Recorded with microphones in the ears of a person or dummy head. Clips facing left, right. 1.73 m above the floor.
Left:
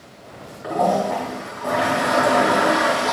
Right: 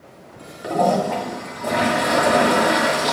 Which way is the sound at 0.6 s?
40° right (ahead or behind).